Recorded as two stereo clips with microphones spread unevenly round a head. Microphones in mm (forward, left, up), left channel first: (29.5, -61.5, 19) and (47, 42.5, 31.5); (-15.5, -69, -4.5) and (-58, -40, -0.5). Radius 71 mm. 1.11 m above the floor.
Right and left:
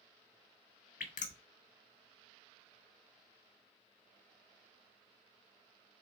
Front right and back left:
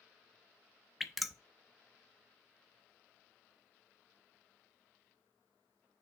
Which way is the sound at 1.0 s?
125° right.